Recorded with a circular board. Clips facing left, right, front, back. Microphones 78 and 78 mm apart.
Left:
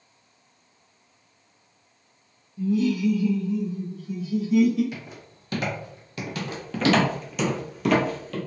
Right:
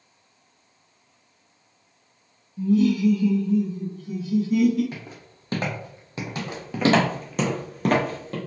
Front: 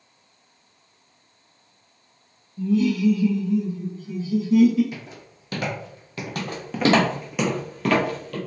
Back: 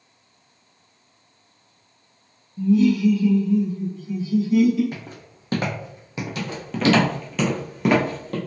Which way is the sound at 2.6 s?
115° right.